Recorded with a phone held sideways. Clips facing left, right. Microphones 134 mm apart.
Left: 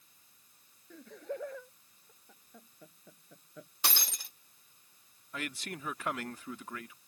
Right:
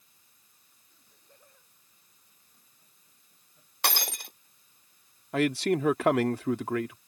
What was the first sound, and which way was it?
Laughter, 75° left (ahead or behind).